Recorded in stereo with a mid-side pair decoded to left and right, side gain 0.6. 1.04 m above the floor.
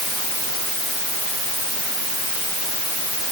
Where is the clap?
No clap in this recording.